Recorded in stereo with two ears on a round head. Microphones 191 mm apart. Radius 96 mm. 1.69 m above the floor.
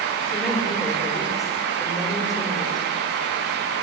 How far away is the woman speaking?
About 4.5 m.